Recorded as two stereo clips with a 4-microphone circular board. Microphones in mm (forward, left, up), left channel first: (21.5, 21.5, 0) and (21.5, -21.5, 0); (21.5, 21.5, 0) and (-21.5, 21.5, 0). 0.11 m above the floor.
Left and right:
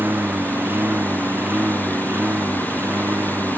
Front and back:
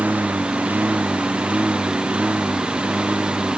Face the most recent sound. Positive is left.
turn(degrees=-125)